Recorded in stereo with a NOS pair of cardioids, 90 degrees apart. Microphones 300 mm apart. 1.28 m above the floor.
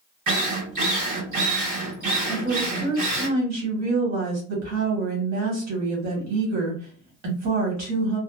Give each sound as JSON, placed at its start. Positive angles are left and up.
{"t": 0.3, "sound": "a drill", "azimuth_deg": -70, "distance_m": 1.3}
{"t": 2.3, "sound": "a woman speaking", "azimuth_deg": -60, "distance_m": 1.6}